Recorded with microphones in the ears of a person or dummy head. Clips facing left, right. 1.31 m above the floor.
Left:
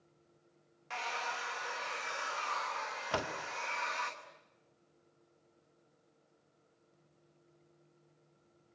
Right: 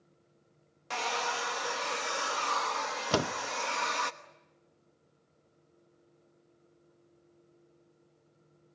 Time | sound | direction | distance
0.9 | a hair dryer | 65° right (ahead or behind) | 1.0 m
3.1 | a door slam | 55° right (ahead or behind) | 0.7 m